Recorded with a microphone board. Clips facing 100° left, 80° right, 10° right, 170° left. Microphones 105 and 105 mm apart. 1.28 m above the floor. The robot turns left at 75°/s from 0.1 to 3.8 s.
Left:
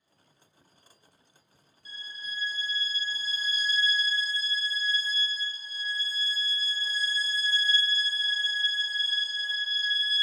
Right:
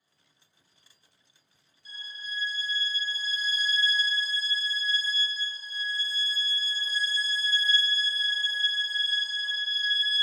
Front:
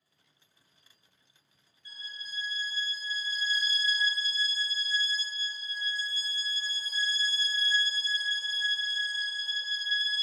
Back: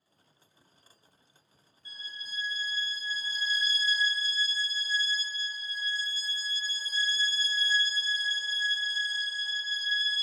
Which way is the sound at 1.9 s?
125° right.